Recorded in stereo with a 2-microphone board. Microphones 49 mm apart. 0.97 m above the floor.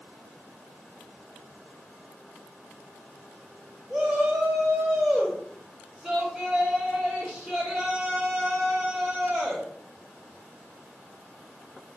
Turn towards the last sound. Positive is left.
turn(degrees=0)  # may be behind; listen again after turning